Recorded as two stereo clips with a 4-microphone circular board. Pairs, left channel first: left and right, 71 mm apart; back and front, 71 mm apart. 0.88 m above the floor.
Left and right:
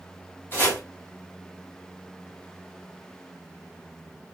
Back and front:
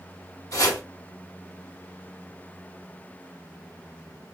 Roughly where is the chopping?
Behind left.